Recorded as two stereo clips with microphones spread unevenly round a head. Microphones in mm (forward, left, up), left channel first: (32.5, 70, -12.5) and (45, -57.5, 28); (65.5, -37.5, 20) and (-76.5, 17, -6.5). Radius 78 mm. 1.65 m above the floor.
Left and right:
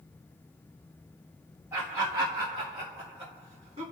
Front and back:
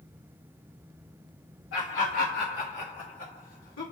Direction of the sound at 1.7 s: 15° right.